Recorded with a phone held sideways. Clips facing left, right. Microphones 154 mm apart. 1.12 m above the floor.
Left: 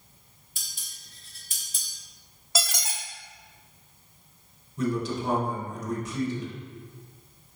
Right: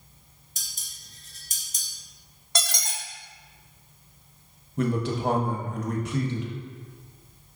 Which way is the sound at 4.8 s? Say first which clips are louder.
Right 2 dB; 60° right (ahead or behind).